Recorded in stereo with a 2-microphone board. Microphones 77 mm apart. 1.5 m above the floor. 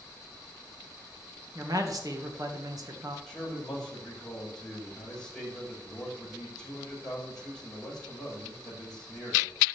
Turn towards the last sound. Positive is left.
turn(degrees=5)  # may be behind; listen again after turning